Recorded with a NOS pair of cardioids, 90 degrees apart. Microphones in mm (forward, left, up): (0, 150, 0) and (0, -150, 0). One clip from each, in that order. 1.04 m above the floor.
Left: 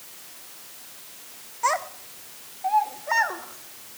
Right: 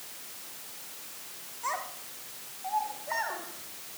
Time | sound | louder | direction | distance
1.6 | a child speaking | left 10 dB | 65° left | 1.6 m